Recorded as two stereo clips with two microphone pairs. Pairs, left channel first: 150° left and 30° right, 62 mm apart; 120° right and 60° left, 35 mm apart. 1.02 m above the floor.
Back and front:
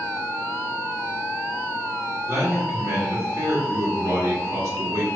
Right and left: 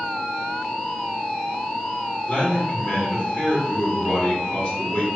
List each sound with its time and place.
2.3 s a man speaking: 55° right, 1.5 m